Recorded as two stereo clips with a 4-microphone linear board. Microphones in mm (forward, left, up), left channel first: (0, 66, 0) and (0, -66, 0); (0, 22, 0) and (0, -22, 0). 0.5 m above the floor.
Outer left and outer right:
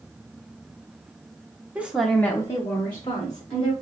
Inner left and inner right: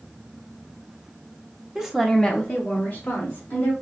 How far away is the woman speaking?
About 0.8 m.